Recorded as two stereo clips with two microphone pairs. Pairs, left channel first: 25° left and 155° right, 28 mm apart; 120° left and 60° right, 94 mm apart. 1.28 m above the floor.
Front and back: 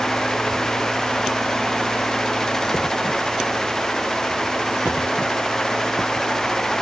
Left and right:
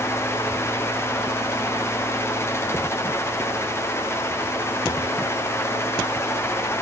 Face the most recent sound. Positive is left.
No sound to turn to.